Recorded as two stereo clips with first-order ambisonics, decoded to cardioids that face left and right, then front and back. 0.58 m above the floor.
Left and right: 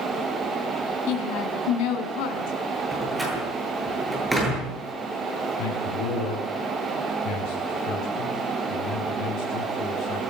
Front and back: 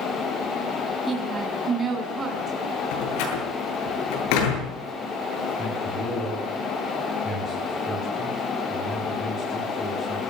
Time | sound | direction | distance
1.1 | a woman speaking | 105° left | 5 m
2.9 | a door slam | 5° right | 8.5 m
5.6 | a man speaking | 70° left | 7 m